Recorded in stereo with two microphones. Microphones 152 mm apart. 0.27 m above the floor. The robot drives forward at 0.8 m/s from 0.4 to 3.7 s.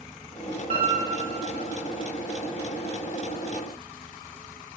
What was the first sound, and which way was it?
A piano, 50° right (ahead or behind).